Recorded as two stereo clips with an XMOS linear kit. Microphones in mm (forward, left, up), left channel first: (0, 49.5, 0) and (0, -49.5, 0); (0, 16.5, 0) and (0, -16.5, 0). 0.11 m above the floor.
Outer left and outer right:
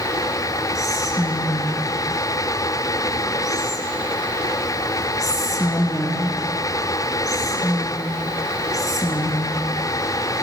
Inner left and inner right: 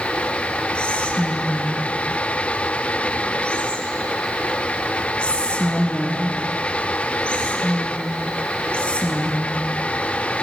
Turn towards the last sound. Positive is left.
turn(degrees=35)  # may be behind; listen again after turning